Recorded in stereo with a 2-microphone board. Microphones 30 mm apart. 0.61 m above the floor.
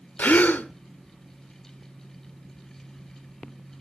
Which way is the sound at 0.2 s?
75° left (ahead or behind).